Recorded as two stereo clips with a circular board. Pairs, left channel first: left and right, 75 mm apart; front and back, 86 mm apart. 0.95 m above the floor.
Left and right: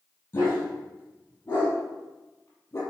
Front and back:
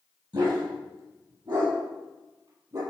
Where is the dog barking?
150° left, 7.5 m; by 2.8 s 145° left, 6.5 m.